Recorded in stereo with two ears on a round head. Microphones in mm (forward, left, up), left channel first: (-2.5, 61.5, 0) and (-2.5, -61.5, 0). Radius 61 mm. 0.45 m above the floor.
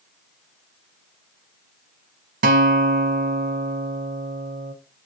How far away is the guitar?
About 0.8 m.